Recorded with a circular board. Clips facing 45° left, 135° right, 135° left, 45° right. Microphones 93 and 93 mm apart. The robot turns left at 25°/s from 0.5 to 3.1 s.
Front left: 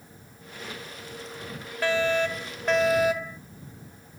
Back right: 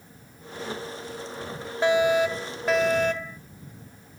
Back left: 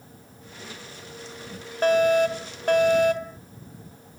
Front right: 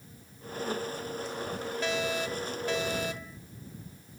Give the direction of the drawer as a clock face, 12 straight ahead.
No drawer in this recording.